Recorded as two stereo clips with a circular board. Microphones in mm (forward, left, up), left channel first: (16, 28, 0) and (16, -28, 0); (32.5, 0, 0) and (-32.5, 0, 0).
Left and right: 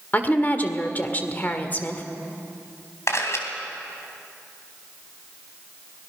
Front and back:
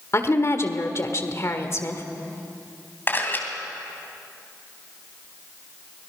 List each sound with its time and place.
0.1 s a woman speaking: 35° left, 1.7 m
3.1 s a camera shutter: 60° left, 3 m